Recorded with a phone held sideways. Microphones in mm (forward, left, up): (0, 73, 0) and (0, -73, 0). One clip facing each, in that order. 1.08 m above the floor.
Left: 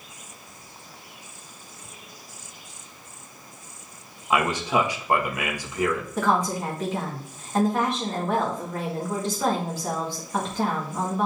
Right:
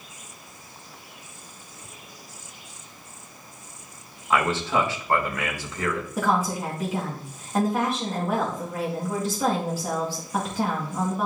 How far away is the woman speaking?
About 2.0 m.